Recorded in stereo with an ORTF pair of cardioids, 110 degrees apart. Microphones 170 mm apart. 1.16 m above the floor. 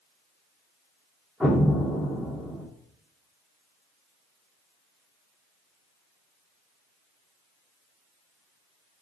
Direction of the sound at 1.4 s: 5° right.